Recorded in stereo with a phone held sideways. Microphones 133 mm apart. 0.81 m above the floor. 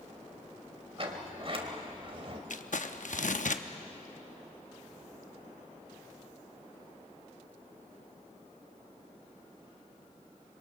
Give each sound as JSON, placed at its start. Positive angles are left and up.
{"t": 1.0, "sound": "a sliding door", "side_deg": -45, "distance_m": 1.9}
{"t": 2.5, "sound": "crumpling", "side_deg": 70, "distance_m": 0.8}